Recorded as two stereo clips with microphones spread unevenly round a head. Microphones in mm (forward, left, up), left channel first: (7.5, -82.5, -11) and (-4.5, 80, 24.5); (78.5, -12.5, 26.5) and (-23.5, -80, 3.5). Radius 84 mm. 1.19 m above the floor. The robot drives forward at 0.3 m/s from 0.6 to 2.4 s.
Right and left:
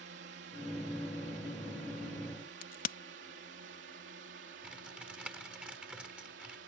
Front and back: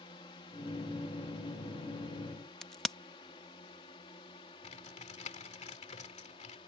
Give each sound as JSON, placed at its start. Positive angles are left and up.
{"t": 0.0, "sound": "a drone", "azimuth_deg": 90}
{"t": 2.6, "sound": "a crack", "azimuth_deg": -55}
{"t": 4.6, "sound": "typing on a keyboard", "azimuth_deg": 10}